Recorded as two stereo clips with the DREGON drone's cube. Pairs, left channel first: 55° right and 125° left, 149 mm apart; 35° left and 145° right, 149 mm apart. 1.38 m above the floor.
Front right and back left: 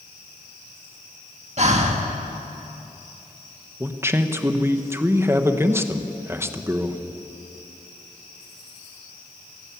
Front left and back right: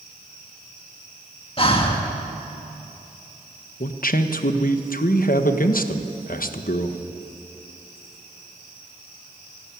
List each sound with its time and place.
1.6 s breathing: 85° left, 1.8 m
3.8 s a man speaking: 50° left, 1.2 m